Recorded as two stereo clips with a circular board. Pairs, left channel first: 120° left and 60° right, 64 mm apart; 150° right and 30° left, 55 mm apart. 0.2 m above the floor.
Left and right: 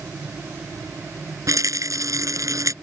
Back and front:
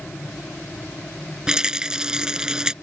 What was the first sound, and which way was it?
A rattle, 45° right.